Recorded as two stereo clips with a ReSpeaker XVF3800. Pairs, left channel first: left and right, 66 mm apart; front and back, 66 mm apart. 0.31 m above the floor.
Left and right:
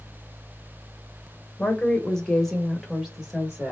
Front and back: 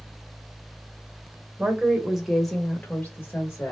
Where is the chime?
No chime in this recording.